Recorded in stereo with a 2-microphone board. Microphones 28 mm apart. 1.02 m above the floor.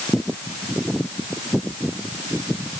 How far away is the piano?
I don't hear a piano.